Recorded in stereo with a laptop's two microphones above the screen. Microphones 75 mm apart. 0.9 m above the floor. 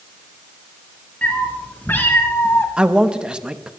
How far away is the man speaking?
About 1.0 m.